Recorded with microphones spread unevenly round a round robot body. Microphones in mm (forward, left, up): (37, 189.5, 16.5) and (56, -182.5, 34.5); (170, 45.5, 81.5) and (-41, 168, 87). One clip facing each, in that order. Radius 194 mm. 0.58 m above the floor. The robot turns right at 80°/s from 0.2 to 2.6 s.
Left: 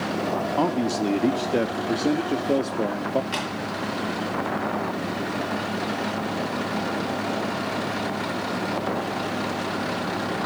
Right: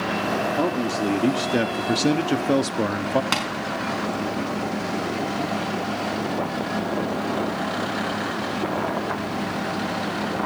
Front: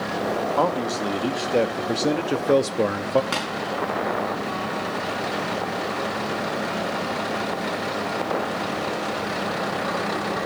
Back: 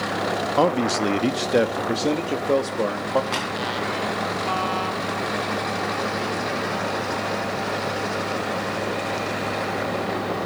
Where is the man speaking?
135° left, 0.7 m; by 3.2 s 65° right, 0.7 m.